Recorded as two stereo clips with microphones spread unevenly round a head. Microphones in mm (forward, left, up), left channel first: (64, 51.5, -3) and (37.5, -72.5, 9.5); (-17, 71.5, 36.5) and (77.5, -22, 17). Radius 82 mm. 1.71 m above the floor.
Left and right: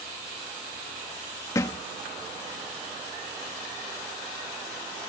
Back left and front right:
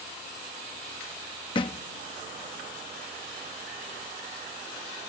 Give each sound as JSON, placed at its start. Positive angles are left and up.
{"t": 1.6, "sound": "a thud", "azimuth_deg": 145}